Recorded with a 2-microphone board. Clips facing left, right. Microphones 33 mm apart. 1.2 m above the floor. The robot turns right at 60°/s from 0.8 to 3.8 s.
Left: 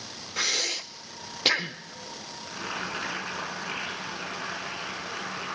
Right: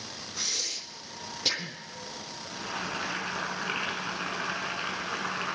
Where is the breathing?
65° left (ahead or behind), 0.9 m; by 1.8 s 35° left (ahead or behind), 0.9 m.